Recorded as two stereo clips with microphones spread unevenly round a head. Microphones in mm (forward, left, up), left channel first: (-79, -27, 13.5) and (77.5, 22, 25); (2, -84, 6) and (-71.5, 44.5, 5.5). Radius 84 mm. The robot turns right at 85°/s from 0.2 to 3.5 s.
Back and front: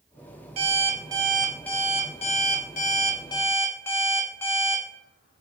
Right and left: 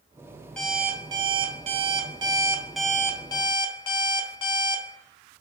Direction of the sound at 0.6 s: 20° left.